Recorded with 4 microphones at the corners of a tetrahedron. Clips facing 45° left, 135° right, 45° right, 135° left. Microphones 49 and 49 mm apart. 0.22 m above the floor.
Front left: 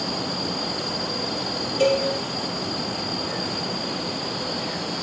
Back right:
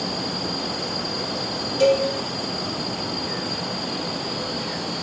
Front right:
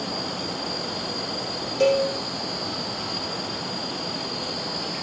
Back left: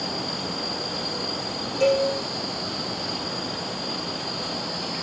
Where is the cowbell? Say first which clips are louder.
Back right 3 dB, front right 1 dB; 20° right, 4 m.